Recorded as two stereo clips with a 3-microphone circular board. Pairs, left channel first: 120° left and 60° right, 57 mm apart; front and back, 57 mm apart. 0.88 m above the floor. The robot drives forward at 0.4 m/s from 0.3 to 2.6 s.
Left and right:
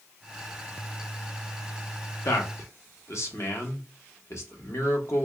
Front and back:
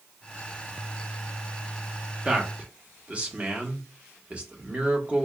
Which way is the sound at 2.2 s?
110° left.